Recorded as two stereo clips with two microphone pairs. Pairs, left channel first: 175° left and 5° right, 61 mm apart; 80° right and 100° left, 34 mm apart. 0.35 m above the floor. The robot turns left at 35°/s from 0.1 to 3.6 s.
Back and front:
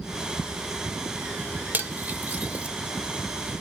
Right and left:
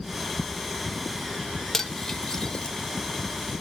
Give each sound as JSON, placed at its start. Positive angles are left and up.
{"t": 1.7, "sound": "cutlery clinking", "azimuth_deg": -10, "distance_m": 0.5}